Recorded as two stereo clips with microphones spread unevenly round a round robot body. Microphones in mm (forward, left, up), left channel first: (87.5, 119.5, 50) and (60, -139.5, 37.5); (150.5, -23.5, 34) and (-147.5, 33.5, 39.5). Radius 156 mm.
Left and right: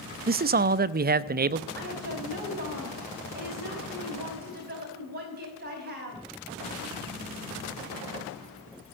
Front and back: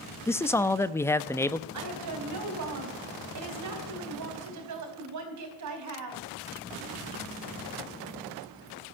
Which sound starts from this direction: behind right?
A woman speaking, at 1.7 s.